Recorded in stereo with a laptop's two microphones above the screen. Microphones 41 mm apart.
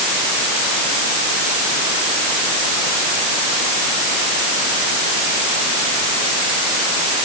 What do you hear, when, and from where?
Only background noise.